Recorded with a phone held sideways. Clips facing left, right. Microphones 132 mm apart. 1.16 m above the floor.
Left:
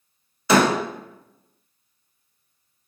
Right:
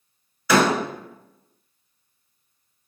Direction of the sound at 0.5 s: 25° left (ahead or behind).